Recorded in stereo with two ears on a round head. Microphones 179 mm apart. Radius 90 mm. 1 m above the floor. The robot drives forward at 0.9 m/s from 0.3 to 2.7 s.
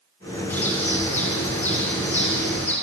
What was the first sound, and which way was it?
A bird, 10° left (ahead or behind).